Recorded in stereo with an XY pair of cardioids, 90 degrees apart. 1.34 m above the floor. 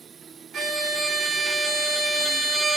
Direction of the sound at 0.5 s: 50° right.